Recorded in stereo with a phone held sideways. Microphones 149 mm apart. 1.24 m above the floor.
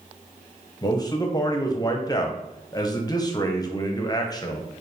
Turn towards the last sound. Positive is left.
turn(degrees=25)  # may be behind; listen again after turning